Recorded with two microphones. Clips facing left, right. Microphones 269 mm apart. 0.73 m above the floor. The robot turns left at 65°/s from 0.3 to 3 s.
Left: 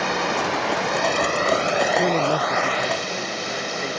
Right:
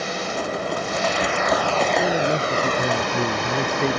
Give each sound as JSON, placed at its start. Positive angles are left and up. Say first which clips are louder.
{"t": 0.0, "sound": "running water", "louder": "left 2 dB", "azimuth_deg": 110}
{"t": 1.9, "sound": "a man speaking", "louder": "even", "azimuth_deg": 30}